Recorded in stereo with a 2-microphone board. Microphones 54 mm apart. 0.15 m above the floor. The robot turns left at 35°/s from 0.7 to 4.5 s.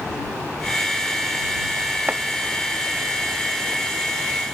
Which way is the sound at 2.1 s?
25° right (ahead or behind).